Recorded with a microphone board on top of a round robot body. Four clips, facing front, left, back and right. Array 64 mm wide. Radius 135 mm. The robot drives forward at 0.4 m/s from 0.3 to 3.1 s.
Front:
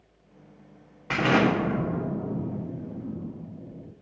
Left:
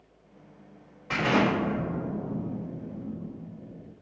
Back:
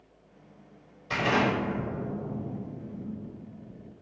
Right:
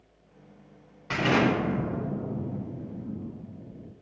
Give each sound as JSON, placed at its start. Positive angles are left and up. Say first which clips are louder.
{"t": 1.1, "sound": "an explosion", "louder": "even, front 4 dB", "azimuth_deg": -10, "distance_m": 2.5}